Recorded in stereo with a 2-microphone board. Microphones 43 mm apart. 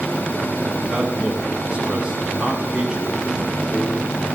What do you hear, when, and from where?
0.9 s a man speaking: 15° right (ahead or behind), 7.5 m